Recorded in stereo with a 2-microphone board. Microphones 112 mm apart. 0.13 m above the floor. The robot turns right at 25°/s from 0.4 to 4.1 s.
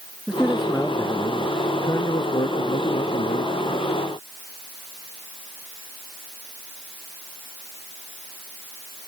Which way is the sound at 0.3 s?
5° right.